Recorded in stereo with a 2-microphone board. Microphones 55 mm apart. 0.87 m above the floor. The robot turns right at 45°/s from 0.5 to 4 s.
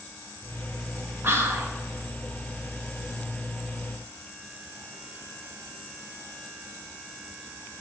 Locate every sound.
1.2 s whispering: 50° right (ahead or behind), 1.3 m; by 1.7 s 55° right (ahead or behind), 1.3 m